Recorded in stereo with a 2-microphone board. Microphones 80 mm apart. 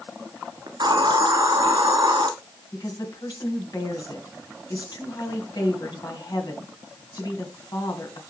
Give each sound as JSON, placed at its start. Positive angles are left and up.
{"t": 0.7, "sound": "a hiss", "side_deg": -65, "distance_m": 1.4}
{"t": 2.7, "sound": "a woman speaking", "side_deg": 50, "distance_m": 2.5}